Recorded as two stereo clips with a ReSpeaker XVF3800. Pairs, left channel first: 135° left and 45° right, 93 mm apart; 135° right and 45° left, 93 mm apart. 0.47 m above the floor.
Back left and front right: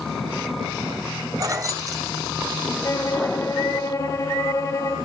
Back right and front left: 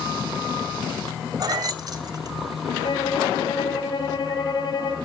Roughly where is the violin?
Behind.